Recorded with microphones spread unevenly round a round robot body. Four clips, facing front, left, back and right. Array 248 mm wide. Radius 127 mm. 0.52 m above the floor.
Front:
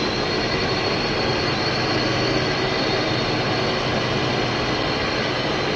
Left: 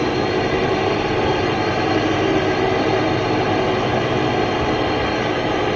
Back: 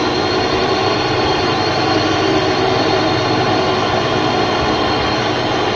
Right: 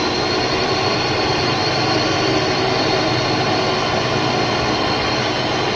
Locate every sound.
0.0 s a drone: 165° left